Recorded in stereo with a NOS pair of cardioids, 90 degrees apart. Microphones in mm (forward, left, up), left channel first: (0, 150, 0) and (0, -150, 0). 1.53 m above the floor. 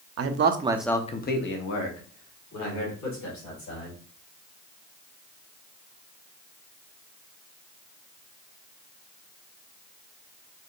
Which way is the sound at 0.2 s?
55° right.